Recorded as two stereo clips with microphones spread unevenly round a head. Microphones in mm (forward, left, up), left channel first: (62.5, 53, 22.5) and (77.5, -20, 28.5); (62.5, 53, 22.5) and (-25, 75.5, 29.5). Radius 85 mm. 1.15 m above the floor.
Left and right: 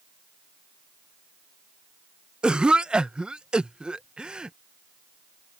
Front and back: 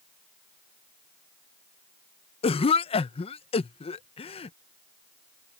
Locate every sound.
2.4 s a cough: straight ahead